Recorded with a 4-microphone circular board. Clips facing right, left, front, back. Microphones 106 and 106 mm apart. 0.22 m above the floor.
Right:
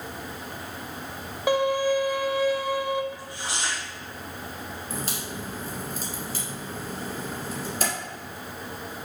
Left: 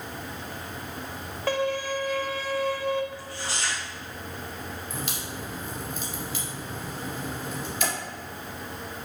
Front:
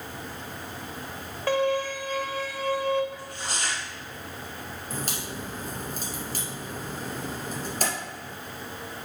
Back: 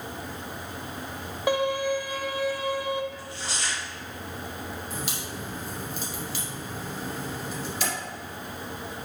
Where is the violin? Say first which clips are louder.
Right 5 dB, even; 140° right, 0.6 m.